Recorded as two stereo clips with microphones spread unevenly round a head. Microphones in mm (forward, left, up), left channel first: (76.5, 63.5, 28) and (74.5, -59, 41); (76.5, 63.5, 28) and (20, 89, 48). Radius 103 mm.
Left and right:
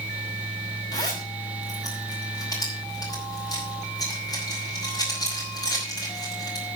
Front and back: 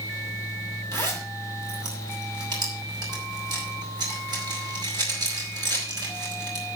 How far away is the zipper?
About 5 m.